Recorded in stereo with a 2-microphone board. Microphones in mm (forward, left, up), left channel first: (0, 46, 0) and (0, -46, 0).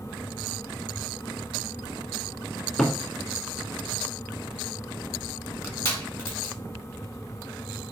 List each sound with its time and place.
2.8 s a cupboard door: 10° left (ahead or behind), 0.7 m
5.6 s crushing: 25° left (ahead or behind), 1.7 m